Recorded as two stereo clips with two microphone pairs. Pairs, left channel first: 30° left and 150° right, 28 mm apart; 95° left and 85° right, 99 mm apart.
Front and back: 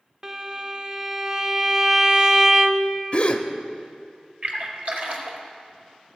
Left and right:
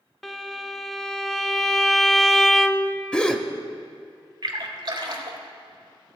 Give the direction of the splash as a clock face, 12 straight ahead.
4 o'clock.